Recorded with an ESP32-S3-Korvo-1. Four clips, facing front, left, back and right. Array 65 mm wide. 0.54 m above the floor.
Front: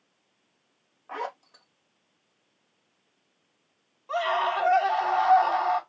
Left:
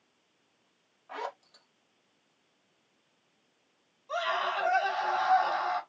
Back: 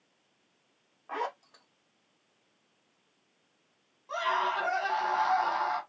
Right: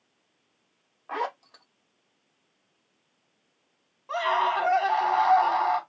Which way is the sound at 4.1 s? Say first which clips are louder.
Right 6 dB, front 4 dB; 70° right.